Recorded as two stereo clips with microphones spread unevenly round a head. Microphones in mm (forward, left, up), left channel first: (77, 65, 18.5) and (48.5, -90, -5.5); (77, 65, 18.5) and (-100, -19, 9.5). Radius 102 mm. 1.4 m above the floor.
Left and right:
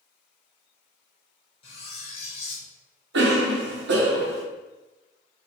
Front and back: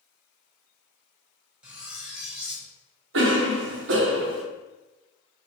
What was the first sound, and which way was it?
Cutlery clinking, 120° left.